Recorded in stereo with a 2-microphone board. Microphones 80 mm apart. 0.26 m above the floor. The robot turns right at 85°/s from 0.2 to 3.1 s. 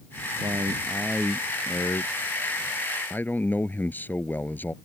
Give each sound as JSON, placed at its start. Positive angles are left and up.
{"t": 0.4, "sound": "a man speaking", "azimuth_deg": -75}